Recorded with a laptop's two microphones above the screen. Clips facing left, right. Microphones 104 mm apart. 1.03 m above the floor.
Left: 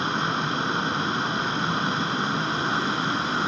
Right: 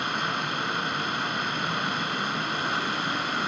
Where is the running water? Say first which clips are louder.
Left 3 dB; 30° left (ahead or behind), 1.5 m.